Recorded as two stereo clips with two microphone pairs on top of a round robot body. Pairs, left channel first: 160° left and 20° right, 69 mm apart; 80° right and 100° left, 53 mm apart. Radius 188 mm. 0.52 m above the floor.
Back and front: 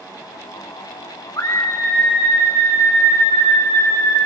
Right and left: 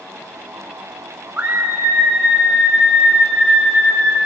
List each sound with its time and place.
1.4 s a scream: 155° left, 2 m; by 4.2 s 175° right, 4 m